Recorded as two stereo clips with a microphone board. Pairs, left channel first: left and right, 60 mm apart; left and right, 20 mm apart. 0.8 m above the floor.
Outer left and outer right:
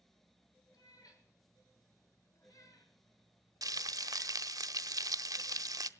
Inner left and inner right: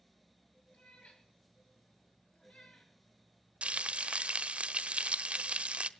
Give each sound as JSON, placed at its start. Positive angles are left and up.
{"t": 0.7, "sound": "a cat meowing", "side_deg": 80, "distance_m": 8.5}
{"t": 3.6, "sound": "frying", "side_deg": -75, "distance_m": 0.7}